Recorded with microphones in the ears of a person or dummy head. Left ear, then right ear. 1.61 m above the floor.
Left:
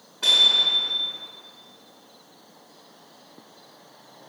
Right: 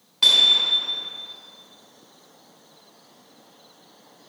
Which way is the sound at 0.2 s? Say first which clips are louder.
Right 1 dB; 75° right (ahead or behind).